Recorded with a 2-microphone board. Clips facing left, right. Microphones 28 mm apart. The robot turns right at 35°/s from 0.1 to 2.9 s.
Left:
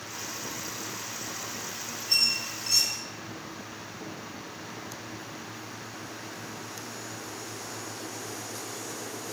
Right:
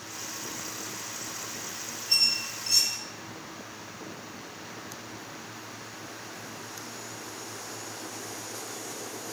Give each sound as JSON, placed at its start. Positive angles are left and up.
{"t": 2.1, "sound": "a squeak", "side_deg": 10, "distance_m": 1.0}